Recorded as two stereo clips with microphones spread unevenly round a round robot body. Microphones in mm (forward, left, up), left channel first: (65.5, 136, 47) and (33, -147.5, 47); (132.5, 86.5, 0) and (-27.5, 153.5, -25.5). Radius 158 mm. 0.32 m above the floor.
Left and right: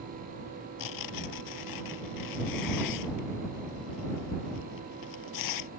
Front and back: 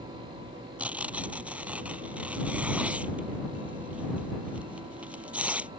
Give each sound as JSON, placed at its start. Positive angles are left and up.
{"t": 0.8, "sound": "tearing paper", "azimuth_deg": 75}